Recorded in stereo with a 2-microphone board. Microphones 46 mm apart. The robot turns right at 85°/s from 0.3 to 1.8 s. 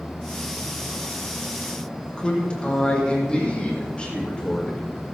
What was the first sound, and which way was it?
A man speaking, 25° left (ahead or behind).